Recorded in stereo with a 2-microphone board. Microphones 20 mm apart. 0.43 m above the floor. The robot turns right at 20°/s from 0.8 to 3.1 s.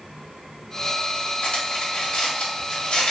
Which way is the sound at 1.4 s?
65° left (ahead or behind).